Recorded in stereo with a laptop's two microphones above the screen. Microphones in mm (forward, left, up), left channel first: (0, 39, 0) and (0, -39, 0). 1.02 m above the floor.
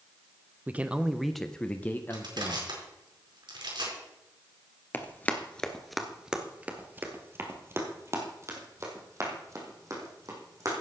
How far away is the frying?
No frying in this recording.